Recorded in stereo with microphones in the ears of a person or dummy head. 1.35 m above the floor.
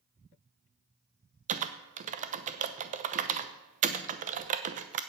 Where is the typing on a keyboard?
40° right (ahead or behind), 0.8 m.